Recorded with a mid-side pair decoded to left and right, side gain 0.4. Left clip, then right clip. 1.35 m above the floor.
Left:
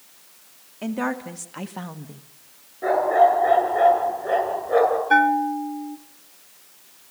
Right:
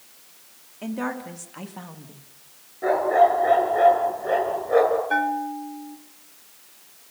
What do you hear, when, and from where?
0.8 s a woman speaking: 30° left, 3 m; by 2.2 s 50° left, 1.5 m
2.8 s a dog barking: 5° left, 9.5 m
5.1 s a bell: 55° left, 0.7 m